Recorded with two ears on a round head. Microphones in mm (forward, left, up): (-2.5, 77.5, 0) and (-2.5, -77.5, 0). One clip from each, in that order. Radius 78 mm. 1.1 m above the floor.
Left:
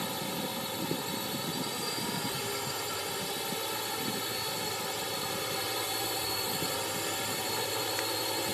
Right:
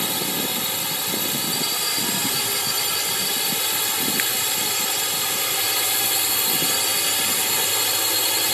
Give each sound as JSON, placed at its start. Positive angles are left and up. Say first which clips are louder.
{"t": 0.0, "sound": "a drone", "louder": "right 10 dB", "side_deg": -60}